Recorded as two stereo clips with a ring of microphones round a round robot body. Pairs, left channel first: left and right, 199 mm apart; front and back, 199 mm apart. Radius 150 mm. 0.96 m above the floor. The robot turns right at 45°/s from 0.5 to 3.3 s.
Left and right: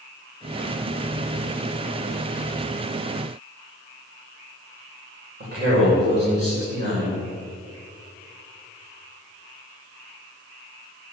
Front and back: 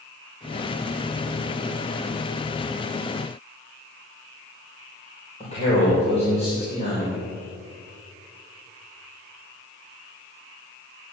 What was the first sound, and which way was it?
A man speaking, 60° right.